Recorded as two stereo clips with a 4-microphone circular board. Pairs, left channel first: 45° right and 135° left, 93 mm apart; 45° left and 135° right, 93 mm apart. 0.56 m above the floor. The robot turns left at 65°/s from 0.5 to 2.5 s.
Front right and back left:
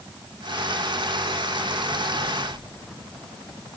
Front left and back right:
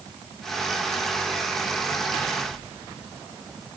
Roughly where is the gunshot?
No gunshot in this recording.